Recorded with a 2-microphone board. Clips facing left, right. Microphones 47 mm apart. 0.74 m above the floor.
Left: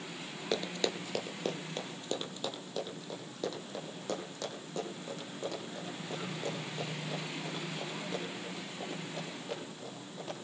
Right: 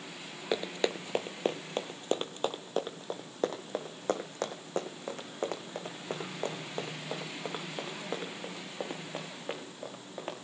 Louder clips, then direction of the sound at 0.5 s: Right 3 dB; 15° right (ahead or behind).